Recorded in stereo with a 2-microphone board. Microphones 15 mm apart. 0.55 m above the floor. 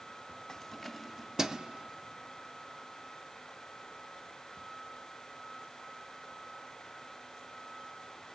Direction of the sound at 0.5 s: 20° left (ahead or behind).